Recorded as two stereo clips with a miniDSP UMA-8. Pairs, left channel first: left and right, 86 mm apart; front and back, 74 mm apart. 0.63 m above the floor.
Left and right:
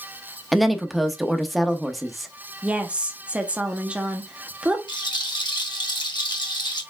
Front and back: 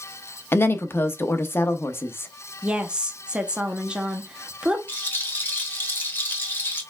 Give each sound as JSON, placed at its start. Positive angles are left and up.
{"t": 0.5, "sound": "a woman speaking", "azimuth_deg": 0, "distance_m": 0.8}
{"t": 2.6, "sound": "a woman speaking", "azimuth_deg": -130, "distance_m": 0.9}
{"t": 4.9, "sound": "a rattle", "azimuth_deg": 60, "distance_m": 1.3}